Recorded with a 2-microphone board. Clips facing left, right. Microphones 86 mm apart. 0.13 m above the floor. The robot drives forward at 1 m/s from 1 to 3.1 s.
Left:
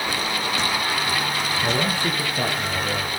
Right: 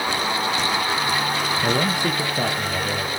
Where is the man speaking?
20° right (ahead or behind), 1.2 m; by 3.1 s 10° right (ahead or behind), 2.5 m.